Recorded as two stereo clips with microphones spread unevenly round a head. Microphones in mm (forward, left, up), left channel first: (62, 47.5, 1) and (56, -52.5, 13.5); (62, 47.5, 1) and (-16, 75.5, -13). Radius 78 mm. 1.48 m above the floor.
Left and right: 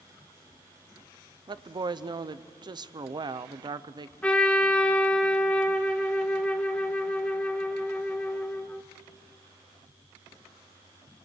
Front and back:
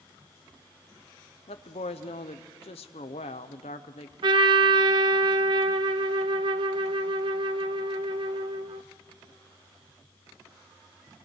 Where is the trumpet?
175° left, 0.6 m.